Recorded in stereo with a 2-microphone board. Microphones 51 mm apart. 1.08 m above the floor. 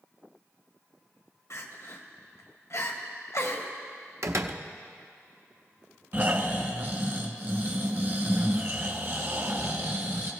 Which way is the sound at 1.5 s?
65° left (ahead or behind).